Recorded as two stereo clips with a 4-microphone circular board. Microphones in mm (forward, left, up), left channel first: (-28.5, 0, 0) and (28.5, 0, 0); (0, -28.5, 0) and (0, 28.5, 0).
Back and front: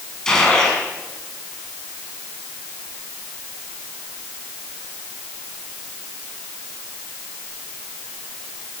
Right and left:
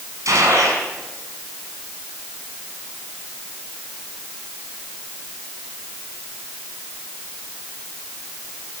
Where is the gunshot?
100° left, 5.5 m.